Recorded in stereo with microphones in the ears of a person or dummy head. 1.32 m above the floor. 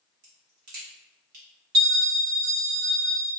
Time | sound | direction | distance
0.2 | a crack | 50° right (ahead or behind) | 0.9 m
1.7 | a bell | 60° right (ahead or behind) | 1.8 m